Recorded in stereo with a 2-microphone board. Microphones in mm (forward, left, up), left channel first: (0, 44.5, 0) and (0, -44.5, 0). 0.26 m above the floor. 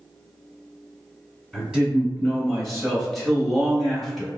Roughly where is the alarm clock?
No alarm clock in this recording.